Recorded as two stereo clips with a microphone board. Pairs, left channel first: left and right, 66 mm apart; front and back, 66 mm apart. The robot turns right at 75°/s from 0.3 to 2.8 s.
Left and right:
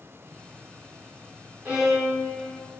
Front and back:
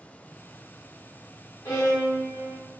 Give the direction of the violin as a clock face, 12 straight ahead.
1 o'clock.